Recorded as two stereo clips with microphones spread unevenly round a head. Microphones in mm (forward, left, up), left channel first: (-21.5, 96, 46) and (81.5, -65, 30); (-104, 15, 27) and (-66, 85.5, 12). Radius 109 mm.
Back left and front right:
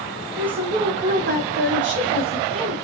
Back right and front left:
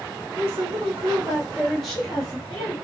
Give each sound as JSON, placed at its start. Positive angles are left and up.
{"t": 0.4, "sound": "a woman speaking", "azimuth_deg": 30, "distance_m": 0.7}